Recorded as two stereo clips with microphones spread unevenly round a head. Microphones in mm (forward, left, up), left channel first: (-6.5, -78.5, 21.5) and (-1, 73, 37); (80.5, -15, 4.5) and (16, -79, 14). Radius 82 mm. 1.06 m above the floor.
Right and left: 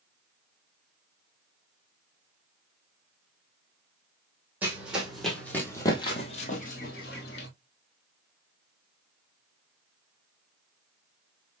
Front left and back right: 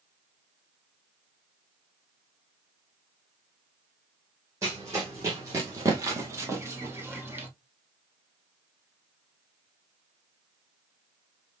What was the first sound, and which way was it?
Running footsteps, 165° left.